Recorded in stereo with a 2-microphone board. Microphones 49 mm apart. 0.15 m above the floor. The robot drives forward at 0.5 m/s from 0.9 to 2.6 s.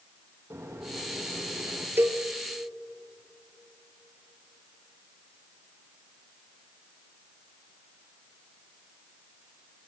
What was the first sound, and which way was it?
A microwave, 75° right (ahead or behind).